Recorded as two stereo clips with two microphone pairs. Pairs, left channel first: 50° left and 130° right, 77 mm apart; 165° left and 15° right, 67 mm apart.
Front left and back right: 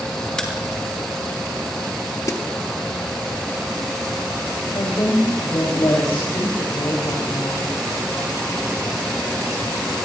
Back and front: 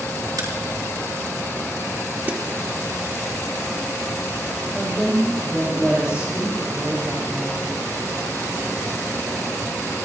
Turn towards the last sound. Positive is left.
turn(degrees=60)